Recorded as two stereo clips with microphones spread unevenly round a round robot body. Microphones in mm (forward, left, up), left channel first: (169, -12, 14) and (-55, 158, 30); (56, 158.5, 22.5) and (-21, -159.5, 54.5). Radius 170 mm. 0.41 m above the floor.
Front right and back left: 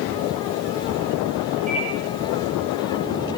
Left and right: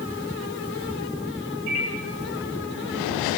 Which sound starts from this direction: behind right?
A microwave, at 1.7 s.